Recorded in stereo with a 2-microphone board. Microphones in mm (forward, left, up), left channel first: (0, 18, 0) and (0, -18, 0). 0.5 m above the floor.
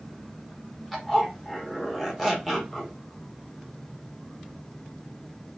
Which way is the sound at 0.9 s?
5° left (ahead or behind).